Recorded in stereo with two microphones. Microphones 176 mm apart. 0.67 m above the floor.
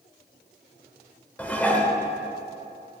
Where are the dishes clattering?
10° left (ahead or behind), 1.3 m.